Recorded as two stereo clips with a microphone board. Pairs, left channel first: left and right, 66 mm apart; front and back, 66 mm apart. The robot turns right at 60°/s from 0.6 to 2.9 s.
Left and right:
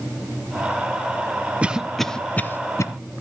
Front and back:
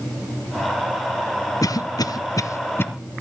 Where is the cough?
20° right, 0.8 m; by 2.9 s 55° left, 0.8 m.